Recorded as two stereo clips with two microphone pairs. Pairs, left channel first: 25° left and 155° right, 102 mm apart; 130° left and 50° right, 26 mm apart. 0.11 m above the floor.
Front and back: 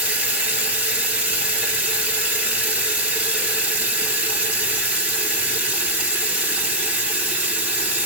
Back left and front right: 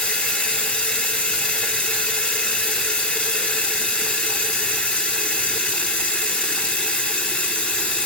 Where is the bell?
I don't hear a bell.